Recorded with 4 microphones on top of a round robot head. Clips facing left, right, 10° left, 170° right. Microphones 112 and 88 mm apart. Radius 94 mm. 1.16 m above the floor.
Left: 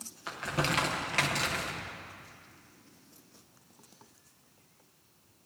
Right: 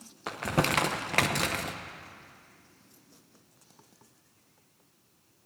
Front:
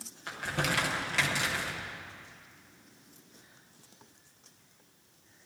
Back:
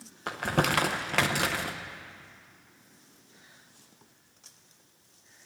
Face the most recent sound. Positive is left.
turn(degrees=-130)